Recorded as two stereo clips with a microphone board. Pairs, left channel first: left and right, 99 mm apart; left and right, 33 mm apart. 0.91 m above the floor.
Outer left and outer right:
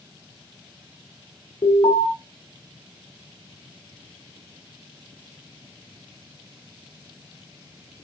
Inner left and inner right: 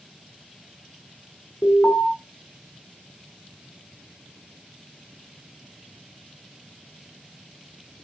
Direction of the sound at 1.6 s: 65° left (ahead or behind).